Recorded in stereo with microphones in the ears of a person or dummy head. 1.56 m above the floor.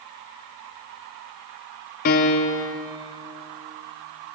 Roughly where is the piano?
Left.